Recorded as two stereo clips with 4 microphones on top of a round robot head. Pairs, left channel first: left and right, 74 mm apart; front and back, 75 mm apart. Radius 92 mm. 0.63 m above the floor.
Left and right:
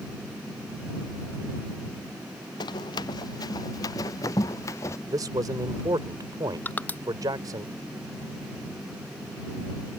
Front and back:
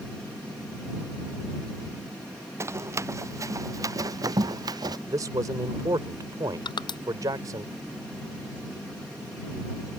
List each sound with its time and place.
2.6 s running footsteps: 130° left; by 5.0 s 150° left
5.1 s a man speaking: 130° right
6.7 s crushing: 20° left